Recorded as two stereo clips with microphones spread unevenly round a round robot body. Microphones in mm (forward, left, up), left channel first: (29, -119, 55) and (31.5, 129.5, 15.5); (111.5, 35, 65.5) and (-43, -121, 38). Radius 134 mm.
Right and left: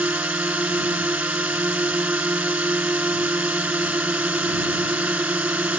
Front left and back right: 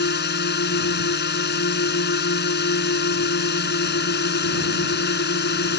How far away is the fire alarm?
I don't hear a fire alarm.